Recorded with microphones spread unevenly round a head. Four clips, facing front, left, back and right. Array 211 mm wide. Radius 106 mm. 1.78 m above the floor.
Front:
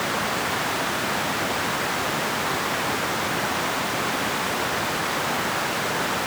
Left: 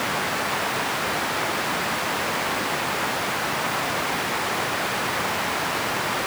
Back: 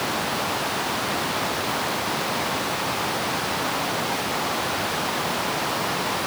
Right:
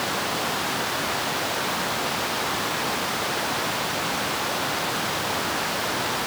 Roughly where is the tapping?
I don't hear tapping.